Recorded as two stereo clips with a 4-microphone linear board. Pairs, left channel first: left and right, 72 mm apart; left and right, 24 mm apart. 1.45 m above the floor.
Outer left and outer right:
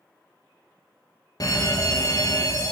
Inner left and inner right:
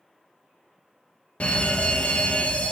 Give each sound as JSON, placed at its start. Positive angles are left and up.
{"t": 1.4, "sound": "an alarm", "side_deg": 60, "distance_m": 1.1}